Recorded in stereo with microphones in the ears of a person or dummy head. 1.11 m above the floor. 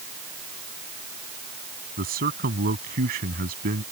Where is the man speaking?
45° right (ahead or behind).